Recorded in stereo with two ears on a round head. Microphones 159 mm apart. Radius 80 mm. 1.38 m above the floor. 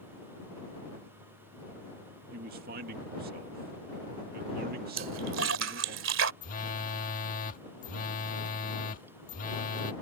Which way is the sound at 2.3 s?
50° right (ahead or behind).